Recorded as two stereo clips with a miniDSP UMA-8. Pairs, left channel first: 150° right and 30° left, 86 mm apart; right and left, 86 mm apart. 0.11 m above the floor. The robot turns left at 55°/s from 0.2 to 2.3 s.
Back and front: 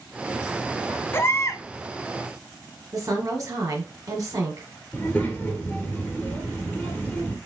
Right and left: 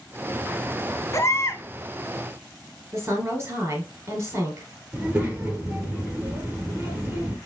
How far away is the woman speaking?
About 2 m.